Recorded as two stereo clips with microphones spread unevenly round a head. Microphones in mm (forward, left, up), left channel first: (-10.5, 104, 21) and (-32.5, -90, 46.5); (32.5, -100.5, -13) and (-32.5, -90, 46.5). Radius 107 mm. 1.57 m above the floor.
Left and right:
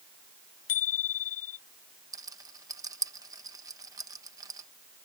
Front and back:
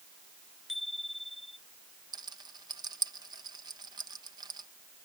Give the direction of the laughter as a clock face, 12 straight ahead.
I don't hear laughter.